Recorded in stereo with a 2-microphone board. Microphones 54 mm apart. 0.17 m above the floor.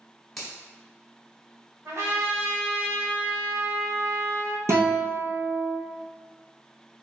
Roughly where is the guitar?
Right.